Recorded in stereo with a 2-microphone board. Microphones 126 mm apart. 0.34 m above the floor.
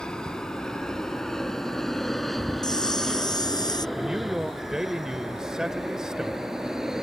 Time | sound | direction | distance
0.0 | an aircraft | 5° left (ahead or behind) | ?
2.6 | a camera shutter | 30° left (ahead or behind) | ?
4.0 | a man speaking | 5° right (ahead or behind) | ?